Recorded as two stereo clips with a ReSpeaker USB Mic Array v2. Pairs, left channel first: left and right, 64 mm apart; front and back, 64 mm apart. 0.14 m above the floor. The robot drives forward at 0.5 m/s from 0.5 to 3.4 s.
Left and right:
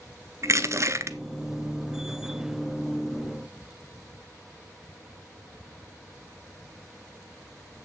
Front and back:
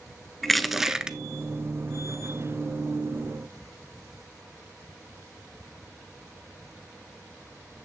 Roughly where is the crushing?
Right.